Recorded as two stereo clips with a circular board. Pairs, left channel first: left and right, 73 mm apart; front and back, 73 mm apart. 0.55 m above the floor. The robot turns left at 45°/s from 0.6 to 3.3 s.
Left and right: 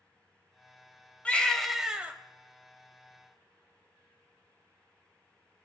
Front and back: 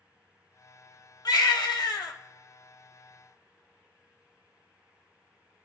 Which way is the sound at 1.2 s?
20° left.